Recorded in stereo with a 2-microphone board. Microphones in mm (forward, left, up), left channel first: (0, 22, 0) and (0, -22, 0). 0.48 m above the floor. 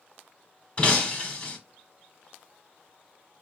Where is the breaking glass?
30° left (ahead or behind), 0.8 m.